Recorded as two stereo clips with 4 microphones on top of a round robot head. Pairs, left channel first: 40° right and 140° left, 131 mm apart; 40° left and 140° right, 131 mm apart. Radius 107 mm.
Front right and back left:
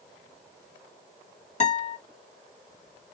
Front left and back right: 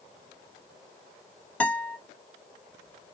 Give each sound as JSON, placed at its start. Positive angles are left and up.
{"t": 1.6, "sound": "a guitar", "azimuth_deg": -35, "distance_m": 1.6}